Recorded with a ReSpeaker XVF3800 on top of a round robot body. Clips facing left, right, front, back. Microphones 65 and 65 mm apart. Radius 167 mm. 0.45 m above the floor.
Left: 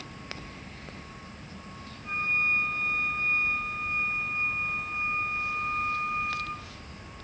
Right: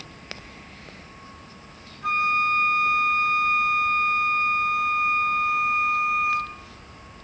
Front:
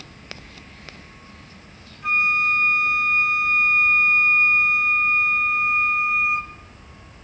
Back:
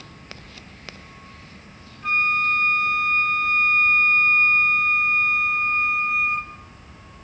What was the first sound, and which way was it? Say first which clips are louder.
A flute: right 7 dB, front 1 dB; 85° right.